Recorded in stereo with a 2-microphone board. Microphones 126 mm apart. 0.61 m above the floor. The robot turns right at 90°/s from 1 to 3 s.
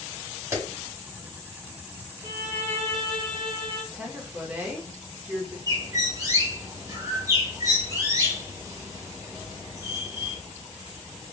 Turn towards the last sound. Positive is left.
turn(degrees=-30)  # may be behind; listen again after turning